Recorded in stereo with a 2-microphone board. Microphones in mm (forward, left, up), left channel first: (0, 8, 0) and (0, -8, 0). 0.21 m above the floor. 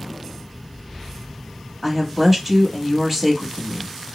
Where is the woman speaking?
15° right (ahead or behind), 1.0 m.